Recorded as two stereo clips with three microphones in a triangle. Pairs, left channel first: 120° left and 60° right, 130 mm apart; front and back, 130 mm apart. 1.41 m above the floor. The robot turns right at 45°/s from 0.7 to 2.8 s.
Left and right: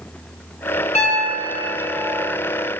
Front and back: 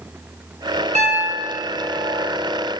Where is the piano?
150° left, 0.7 m; by 2.3 s 150° right, 0.7 m.